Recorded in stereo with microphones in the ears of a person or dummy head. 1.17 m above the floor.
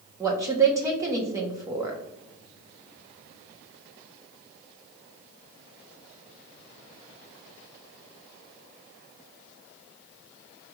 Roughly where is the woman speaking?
Centre.